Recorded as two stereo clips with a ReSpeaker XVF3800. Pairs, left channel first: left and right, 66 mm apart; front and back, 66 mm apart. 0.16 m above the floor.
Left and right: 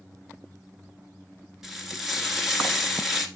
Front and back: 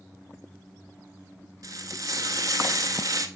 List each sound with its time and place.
1.6 s frying: 175° right, 1.0 m